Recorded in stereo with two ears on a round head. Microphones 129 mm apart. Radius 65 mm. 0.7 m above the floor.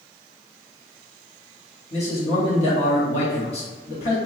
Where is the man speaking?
45° left (ahead or behind), 1.2 m.